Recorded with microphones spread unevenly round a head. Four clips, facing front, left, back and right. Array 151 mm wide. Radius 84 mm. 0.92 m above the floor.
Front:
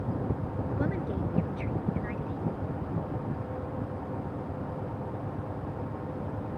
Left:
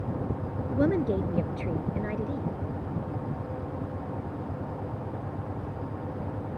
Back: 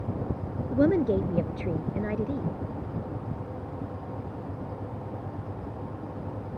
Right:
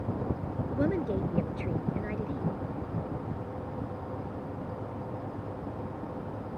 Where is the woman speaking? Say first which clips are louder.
Left 4 dB, back 11 dB; 165° left.